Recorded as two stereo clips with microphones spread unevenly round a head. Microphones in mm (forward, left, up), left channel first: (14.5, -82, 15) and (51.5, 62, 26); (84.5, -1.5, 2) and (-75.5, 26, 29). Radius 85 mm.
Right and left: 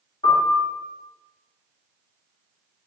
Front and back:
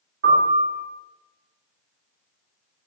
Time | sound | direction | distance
0.2 | a piano | 165° right | 1.7 m